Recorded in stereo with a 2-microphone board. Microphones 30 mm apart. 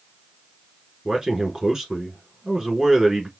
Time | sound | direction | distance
1.1 | a man speaking | 20° right (ahead or behind) | 1.1 m